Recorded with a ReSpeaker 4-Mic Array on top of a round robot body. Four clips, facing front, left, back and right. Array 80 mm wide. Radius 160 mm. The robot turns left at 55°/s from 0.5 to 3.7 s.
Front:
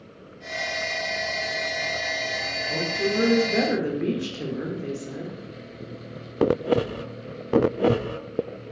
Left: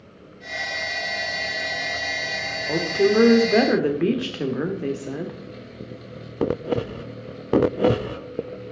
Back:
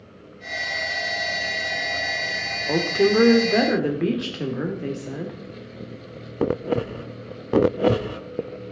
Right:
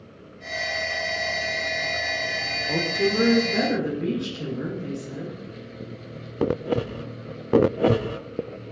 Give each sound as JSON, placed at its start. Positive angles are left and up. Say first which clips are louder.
{"t": 2.7, "sound": "a woman speaking", "louder": "left 5 dB, back 8 dB", "azimuth_deg": 165, "distance_m": 1.7}